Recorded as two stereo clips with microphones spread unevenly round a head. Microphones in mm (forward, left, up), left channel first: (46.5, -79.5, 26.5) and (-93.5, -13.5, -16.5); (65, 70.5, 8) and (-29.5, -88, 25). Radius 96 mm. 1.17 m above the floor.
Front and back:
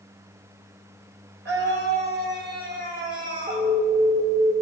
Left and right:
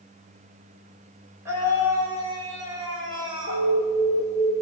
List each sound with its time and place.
1.4 s a scream: 160° left, 5 m; by 3.7 s 175° left, 6 m
3.5 s an alarm: 60° left, 2.5 m